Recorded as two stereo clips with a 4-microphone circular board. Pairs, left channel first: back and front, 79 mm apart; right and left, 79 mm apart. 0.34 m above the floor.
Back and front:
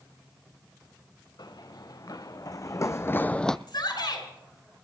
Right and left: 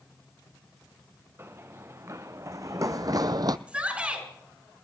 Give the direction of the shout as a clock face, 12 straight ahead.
7 o'clock.